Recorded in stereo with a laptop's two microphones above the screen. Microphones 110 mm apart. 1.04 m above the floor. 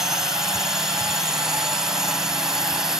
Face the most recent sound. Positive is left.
turn(degrees=-5)  # may be behind; listen again after turning